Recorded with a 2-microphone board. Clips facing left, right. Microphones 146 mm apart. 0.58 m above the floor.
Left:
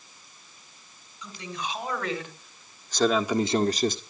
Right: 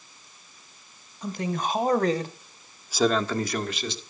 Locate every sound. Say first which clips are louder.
1.2 s a man speaking: right 8 dB; 50° right (ahead or behind), 3 m; by 4.0 s 45° left (ahead or behind), 1.6 m